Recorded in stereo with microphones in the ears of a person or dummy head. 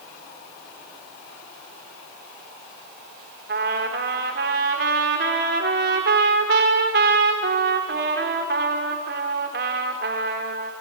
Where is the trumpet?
40° right (ahead or behind), 1.1 m.